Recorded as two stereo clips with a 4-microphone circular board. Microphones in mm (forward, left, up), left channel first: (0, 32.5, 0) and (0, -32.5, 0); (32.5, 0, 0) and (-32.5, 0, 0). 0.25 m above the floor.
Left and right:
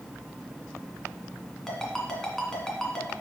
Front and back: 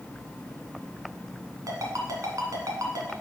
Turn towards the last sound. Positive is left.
turn(degrees=175)